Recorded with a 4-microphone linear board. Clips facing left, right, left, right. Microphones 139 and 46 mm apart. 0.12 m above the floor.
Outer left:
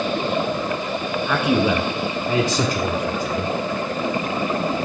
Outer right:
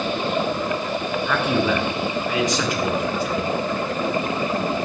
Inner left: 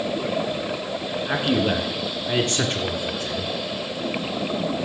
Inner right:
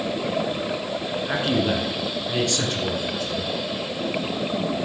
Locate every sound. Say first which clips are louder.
1.3 s a man speaking: outer left 2 dB, inner left 1 dB; 5° left (ahead or behind), 1.3 m; by 3.5 s 50° left (ahead or behind), 1.8 m